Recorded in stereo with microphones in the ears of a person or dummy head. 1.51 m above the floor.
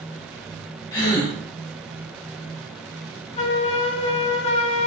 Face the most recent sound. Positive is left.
turn(degrees=35)  # may be behind; listen again after turning